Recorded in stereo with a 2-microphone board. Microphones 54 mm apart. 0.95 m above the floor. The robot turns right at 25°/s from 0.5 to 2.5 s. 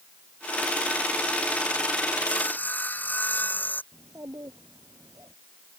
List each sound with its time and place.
2.3 s sawing: 25° left (ahead or behind); by 3.8 s 30° left (ahead or behind)
3.9 s a child speaking: 75° right (ahead or behind)